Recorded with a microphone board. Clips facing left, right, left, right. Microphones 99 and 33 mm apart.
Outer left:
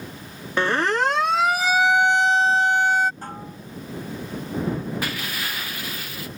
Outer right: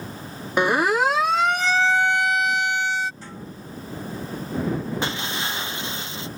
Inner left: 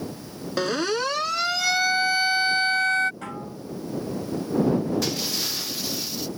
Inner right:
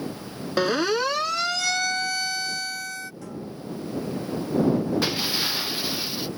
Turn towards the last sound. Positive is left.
turn(degrees=-25)  # may be behind; listen again after turning